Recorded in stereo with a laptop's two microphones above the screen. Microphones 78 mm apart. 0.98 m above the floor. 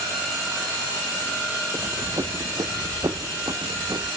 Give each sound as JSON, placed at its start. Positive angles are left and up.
{"t": 1.7, "sound": "running footsteps", "side_deg": -35, "distance_m": 1.5}